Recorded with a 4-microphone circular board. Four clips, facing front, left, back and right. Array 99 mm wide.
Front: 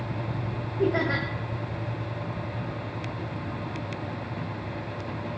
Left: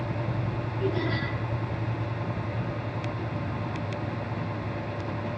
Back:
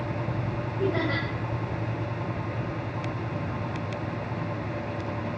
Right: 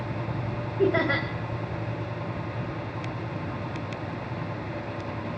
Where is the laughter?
75° right, 1.8 m.